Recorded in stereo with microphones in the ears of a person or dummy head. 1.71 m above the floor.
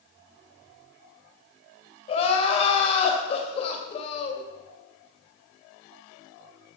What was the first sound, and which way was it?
Crying, 35° left (ahead or behind).